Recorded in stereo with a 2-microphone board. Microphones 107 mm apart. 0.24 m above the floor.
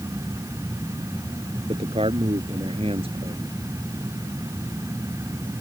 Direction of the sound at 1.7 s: 60° right (ahead or behind).